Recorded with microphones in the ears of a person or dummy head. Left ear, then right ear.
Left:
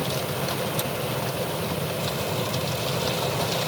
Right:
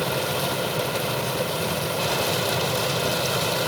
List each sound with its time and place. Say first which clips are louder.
0.0 s a fan: right 3 dB; 55° right (ahead or behind)